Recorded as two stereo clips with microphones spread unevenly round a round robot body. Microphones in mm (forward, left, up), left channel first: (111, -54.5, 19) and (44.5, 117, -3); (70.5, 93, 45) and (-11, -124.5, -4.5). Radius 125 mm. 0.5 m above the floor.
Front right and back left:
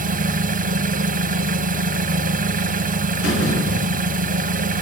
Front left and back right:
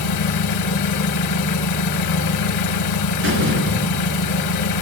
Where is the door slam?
75° right, 6 m.